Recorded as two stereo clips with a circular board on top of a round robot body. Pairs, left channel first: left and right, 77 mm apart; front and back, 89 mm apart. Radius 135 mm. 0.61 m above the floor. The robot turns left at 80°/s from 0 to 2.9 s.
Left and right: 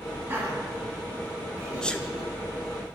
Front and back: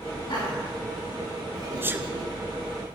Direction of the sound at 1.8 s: 160° left.